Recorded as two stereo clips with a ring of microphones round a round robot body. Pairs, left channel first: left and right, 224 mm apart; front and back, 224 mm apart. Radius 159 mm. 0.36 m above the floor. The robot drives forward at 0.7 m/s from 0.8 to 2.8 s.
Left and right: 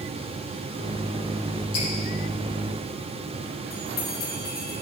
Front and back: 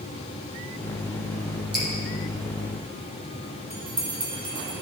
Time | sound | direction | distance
1.7 | dripping | 140° left | 6 m
3.7 | a bell | 135° left | 4 m